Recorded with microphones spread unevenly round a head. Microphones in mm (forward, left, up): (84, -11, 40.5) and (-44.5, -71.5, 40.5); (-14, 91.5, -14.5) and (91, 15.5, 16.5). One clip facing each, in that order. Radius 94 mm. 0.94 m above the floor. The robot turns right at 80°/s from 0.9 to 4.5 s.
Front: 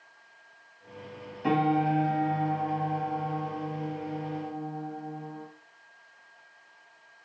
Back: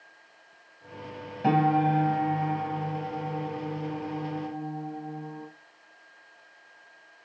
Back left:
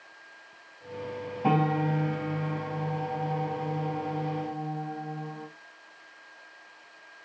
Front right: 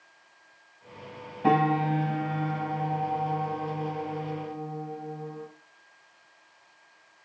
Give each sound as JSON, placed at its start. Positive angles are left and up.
{"t": 1.4, "sound": "a piano", "azimuth_deg": -130, "distance_m": 4.0}